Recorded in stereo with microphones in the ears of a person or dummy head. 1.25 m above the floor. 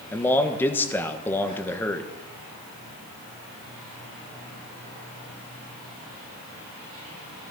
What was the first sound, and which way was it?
A man speaking, 5° left (ahead or behind).